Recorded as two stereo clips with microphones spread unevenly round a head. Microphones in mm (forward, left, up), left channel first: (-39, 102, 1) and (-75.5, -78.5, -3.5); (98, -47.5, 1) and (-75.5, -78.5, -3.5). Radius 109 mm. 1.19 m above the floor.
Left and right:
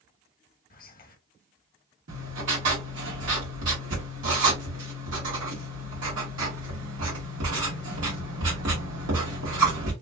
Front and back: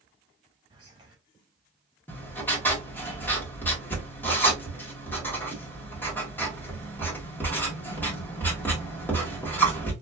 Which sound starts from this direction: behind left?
Whispering, at 0.7 s.